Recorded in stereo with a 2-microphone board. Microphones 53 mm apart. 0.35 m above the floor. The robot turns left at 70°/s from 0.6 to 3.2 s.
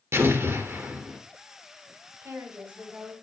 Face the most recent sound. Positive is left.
turn(degrees=175)